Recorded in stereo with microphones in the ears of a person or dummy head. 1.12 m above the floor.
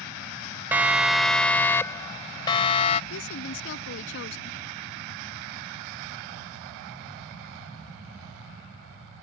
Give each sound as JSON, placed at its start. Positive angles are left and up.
{"t": 0.7, "sound": "a siren", "side_deg": -10}
{"t": 3.1, "sound": "a woman speaking", "side_deg": 75}